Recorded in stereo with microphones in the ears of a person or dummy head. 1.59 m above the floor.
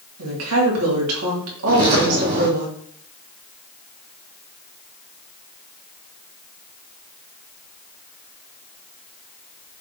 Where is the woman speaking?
85° right, 3 m.